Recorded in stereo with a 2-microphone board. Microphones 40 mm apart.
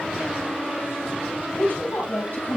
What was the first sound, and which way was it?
A woman speaking, 50° left (ahead or behind).